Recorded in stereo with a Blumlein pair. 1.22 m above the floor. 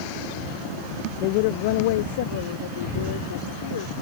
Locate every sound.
1.2 s a woman speaking: 40° left; by 3.9 s 60° left